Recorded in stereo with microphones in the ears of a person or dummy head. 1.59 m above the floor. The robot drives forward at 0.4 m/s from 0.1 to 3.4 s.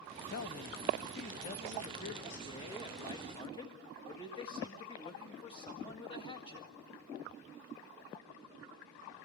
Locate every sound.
0.3 s a man speaking: 55° left (ahead or behind), 1.1 m; by 6.7 s 25° left (ahead or behind), 1.9 m